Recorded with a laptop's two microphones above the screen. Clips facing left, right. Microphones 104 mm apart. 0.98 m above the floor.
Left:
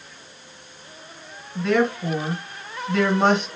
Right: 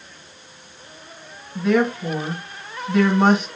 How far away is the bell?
I don't hear a bell.